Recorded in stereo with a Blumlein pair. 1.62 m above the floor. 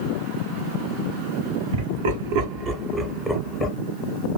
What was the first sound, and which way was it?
Laughter, 60° right.